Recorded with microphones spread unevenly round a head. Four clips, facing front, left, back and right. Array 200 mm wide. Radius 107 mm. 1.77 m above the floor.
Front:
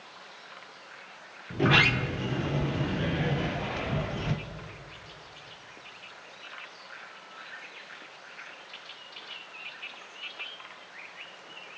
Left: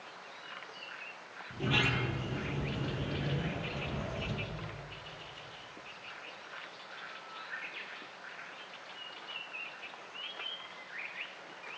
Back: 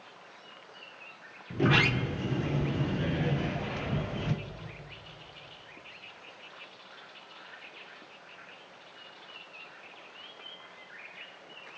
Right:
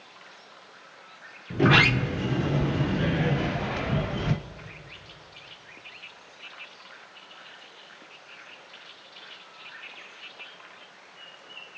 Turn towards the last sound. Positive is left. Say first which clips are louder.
# right 12 dB, front 2 dB
turn(degrees=-65)